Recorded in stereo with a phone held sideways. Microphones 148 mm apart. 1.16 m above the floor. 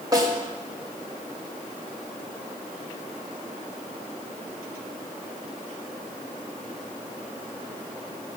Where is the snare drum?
25° right (ahead or behind), 3.5 m.